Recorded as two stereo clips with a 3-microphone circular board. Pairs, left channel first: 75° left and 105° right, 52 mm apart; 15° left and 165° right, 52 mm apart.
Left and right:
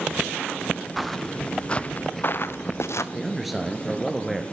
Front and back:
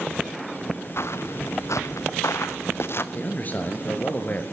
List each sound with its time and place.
1.0 s footsteps: 20° right, 0.9 m; by 3.0 s 55° left, 0.9 m
3.1 s a man speaking: 20° right, 1.5 m